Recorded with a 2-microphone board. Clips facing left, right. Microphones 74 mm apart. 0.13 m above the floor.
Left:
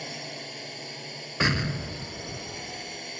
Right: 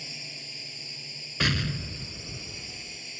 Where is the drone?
50° left (ahead or behind).